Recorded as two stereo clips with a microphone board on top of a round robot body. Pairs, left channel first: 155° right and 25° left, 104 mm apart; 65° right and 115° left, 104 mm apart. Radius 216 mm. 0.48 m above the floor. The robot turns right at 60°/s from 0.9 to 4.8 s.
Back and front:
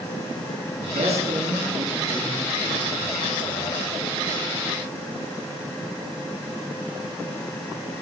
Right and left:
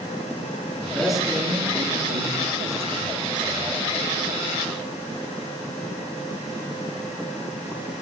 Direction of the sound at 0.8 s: 10° left.